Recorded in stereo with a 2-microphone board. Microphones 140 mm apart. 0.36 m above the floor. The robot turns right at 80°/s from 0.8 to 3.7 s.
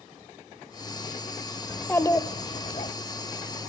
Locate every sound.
1.7 s a child speaking: 5° left, 0.8 m; by 2.9 s 100° left, 0.8 m